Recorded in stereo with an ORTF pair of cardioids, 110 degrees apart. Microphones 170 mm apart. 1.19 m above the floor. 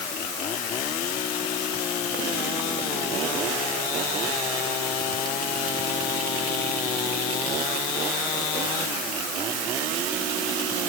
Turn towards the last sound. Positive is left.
No sound to turn to.